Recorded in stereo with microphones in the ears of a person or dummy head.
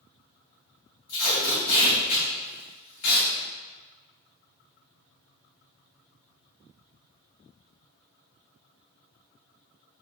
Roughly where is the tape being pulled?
Left.